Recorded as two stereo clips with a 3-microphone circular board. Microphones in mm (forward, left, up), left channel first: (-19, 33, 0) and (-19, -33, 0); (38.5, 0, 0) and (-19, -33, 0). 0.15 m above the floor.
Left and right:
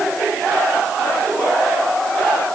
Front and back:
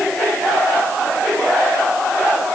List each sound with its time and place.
Only background noise.